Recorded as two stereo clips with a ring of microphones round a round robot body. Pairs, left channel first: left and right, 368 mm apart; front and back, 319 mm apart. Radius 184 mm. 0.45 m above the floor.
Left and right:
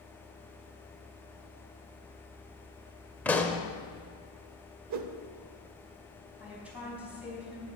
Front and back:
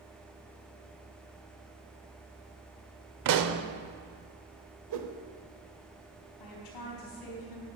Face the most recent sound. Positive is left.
turn(degrees=-5)